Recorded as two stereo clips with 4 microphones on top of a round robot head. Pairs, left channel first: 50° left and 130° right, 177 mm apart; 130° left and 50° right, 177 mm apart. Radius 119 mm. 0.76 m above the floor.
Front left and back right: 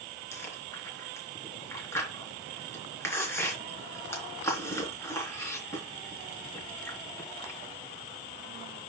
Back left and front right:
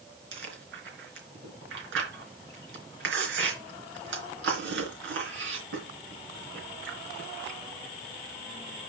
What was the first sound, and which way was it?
Chewing, 30° right.